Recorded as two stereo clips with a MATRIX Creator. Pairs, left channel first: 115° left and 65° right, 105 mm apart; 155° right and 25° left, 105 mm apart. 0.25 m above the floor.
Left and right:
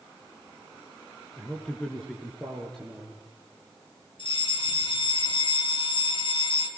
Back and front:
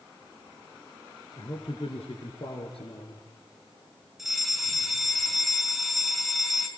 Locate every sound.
1.4 s a man speaking: 170° right, 3 m; by 3.2 s 160° right, 4 m
4.2 s a fire alarm: 110° left, 4 m